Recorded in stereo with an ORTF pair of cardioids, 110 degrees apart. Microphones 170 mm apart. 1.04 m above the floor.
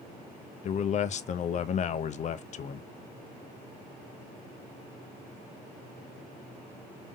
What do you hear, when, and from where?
0.6 s a man speaking: 45° left, 0.6 m